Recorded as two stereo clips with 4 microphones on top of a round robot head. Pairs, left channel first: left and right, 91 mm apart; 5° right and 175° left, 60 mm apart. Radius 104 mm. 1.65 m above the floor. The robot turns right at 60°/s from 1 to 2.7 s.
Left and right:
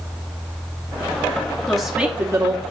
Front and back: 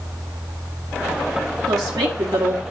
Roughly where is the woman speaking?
Behind.